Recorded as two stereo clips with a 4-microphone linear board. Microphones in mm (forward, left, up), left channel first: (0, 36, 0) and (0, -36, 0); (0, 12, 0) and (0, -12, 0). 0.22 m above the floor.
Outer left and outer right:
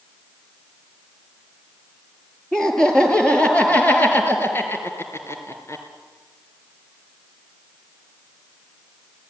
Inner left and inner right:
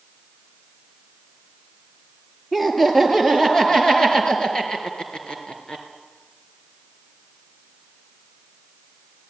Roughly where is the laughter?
Centre.